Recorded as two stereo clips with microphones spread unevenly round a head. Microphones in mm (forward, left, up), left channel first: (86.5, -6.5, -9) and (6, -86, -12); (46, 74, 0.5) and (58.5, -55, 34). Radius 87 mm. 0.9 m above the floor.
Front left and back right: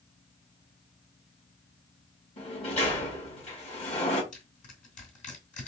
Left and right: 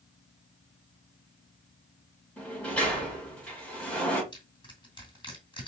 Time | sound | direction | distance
2.4 | a sliding door | 20° left | 2 m
4.3 | crushing | 40° left | 3 m